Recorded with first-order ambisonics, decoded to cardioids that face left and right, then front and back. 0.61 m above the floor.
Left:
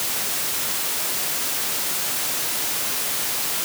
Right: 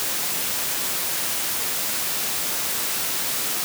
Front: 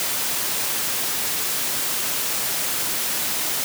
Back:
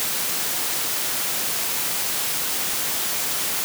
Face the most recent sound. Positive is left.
No sound to turn to.